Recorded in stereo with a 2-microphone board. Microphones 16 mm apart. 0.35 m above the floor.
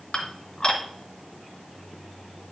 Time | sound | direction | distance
0.1 | dishes clattering | 50° left (ahead or behind) | 2.5 m